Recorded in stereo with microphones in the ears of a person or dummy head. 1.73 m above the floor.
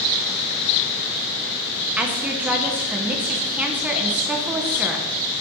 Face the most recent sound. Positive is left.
turn(degrees=-5)  # may be behind; listen again after turning